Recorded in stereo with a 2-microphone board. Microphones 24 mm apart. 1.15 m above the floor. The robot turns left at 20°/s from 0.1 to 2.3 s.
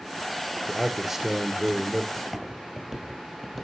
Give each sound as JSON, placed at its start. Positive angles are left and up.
{"t": 0.7, "sound": "a man speaking", "side_deg": -5, "distance_m": 0.6}
{"t": 2.2, "sound": "footsteps", "side_deg": 0, "distance_m": 1.5}